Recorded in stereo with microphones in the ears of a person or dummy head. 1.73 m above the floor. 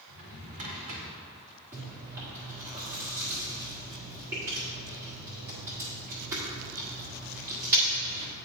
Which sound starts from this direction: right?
A drawer, at 0.1 s.